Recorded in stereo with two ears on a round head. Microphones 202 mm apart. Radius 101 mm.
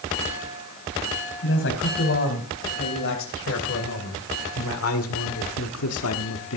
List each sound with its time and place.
1.4 s a man speaking: 55° left (ahead or behind), 4 m; by 6.6 s 70° left (ahead or behind), 1.2 m